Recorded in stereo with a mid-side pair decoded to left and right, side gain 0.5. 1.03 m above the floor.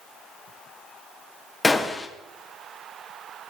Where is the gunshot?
15° left, 1.5 m.